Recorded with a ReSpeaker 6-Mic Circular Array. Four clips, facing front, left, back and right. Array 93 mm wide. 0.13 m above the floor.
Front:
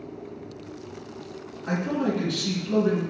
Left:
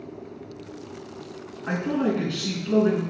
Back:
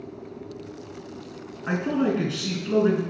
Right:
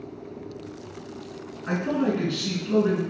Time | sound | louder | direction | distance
1.7 | a man speaking | even, back 2 dB | 170° left | 1.1 m